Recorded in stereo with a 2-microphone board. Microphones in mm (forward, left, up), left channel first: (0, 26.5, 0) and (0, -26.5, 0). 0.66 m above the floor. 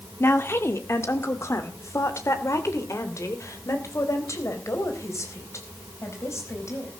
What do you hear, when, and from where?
0.2 s a woman speaking: 50° left (ahead or behind), 1.8 m; by 6.9 s 65° left (ahead or behind), 5 m